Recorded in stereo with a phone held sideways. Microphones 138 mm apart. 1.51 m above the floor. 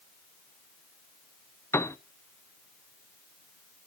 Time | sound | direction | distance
1.7 | a piano | 20° left (ahead or behind) | 0.6 m